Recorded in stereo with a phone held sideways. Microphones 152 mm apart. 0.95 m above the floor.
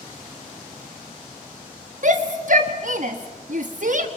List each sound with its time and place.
2.0 s a shout: 55° right (ahead or behind), 1.1 m